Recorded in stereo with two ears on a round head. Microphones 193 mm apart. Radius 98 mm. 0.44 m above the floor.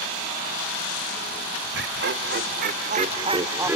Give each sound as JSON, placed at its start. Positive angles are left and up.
{"t": 1.7, "sound": "laughter", "side_deg": -55, "distance_m": 1.7}